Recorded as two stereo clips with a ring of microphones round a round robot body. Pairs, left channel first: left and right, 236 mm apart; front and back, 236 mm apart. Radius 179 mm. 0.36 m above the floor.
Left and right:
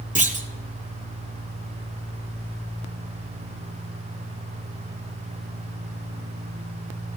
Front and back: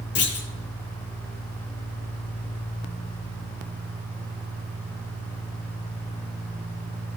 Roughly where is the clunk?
Ahead right.